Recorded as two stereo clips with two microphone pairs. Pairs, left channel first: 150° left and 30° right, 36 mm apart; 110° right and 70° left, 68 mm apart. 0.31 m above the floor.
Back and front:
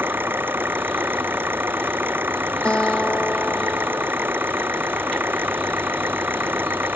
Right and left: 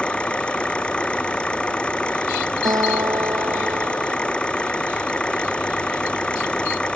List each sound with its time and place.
0.0 s an engine running: 35° right
2.6 s a guitar: 95° left